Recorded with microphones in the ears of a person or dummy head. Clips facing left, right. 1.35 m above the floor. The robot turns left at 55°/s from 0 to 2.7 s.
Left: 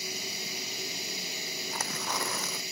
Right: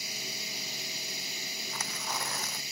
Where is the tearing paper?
135° left; by 2.6 s 85° left.